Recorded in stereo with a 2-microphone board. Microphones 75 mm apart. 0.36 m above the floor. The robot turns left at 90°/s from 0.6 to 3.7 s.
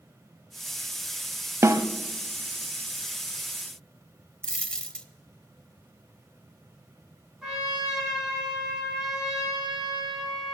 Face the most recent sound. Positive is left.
turn(degrees=-10)  # may be behind; listen again after turning